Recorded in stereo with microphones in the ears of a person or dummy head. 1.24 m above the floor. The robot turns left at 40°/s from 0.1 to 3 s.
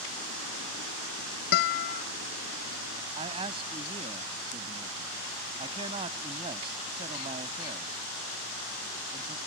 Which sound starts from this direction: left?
A guitar, at 1.5 s.